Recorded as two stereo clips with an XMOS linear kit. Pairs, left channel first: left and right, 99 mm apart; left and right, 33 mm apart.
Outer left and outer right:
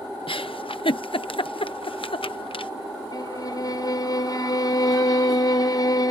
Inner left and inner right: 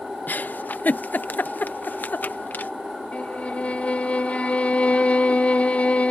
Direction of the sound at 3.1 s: 40° left (ahead or behind).